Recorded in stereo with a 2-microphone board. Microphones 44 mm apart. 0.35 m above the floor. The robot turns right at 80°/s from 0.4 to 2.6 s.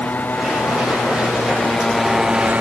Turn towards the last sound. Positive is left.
turn(degrees=-140)